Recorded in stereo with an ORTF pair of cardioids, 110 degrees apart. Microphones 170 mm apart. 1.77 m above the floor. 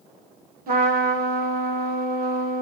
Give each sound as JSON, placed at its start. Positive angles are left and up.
{"t": 0.7, "sound": "a trumpet", "azimuth_deg": -60, "distance_m": 1.5}